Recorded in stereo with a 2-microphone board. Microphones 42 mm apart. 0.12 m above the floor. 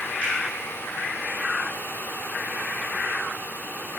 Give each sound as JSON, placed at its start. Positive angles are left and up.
{"t": 0.2, "sound": "a finger snap", "side_deg": 25, "distance_m": 1.3}